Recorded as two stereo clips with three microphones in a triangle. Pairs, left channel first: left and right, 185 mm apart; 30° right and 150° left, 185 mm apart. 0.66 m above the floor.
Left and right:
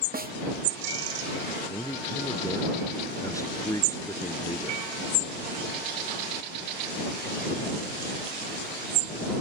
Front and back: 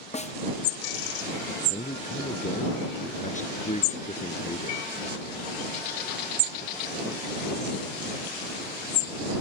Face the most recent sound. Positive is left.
turn(degrees=20)